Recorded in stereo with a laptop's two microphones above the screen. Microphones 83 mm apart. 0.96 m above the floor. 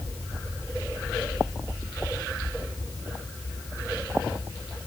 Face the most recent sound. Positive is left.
No sound to turn to.